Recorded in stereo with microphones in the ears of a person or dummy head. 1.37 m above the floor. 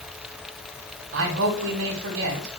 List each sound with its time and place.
1.1 s a man speaking: 70° right (ahead or behind), 2 m